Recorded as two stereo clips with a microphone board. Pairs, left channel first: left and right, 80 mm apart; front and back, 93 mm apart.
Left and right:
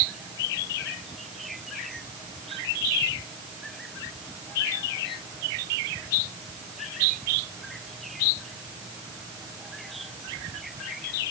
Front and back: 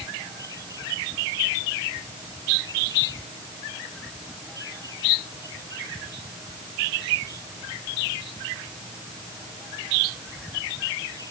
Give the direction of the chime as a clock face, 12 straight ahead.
No chime in this recording.